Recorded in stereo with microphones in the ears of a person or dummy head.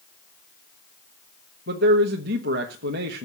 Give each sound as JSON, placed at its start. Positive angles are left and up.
{"t": 1.7, "sound": "a man speaking", "side_deg": -50, "distance_m": 1.1}